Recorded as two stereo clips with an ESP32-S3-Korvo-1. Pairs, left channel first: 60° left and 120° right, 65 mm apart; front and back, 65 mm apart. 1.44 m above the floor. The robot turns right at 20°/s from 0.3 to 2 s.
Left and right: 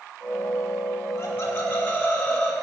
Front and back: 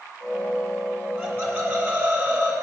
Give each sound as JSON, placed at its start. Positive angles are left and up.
{"t": 1.2, "sound": "laughter", "azimuth_deg": 115, "distance_m": 4.0}